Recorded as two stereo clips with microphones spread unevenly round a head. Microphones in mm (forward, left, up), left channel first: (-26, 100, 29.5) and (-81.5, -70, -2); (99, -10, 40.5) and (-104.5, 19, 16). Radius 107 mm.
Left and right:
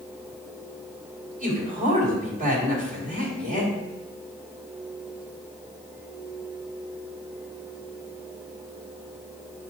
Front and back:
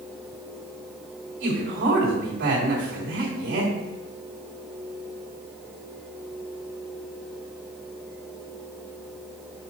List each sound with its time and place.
1.4 s a man speaking: 155° right, 3.5 m